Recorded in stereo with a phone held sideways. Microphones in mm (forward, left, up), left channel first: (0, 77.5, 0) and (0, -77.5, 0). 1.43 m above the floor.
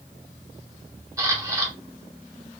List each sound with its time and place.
1.2 s a camera shutter: 20° right (ahead or behind), 0.9 m